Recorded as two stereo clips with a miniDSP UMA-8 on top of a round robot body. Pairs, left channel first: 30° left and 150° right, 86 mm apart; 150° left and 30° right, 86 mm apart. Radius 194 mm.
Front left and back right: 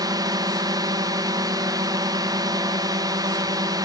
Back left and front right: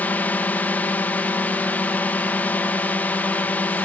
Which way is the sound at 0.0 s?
145° right.